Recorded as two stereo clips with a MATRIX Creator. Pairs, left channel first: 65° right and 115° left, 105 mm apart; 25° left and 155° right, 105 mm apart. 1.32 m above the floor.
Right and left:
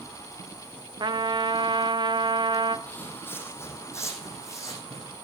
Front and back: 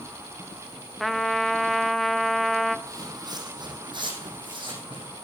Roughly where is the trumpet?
Left.